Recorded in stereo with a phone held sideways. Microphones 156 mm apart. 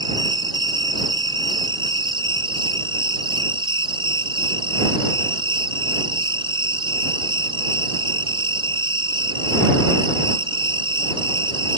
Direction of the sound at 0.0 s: 30° right (ahead or behind).